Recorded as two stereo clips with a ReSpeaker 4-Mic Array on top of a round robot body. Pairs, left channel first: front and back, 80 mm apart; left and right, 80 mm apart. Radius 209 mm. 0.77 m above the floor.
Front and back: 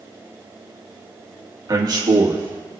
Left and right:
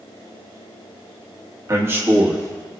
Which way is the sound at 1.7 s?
140° right.